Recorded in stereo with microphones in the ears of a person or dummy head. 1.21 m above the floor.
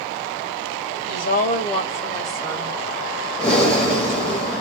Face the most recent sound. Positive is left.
turn(degrees=5)  # may be behind; listen again after turning